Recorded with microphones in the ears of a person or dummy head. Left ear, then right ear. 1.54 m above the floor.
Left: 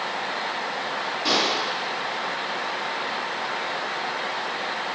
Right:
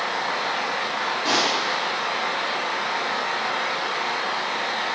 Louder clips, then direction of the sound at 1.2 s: Even; 25° left (ahead or behind).